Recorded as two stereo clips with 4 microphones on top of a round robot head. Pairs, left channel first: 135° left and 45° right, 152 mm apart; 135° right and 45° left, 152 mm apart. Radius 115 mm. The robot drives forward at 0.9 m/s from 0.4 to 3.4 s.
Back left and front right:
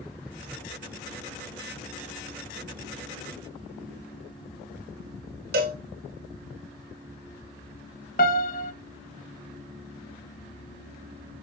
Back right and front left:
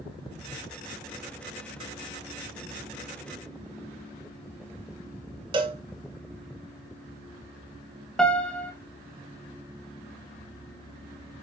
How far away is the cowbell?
About 1.2 m.